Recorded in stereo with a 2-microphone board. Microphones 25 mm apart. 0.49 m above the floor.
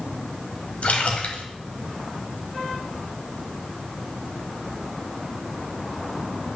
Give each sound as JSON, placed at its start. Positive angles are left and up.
{"t": 0.8, "sound": "a splash", "side_deg": 65, "distance_m": 1.4}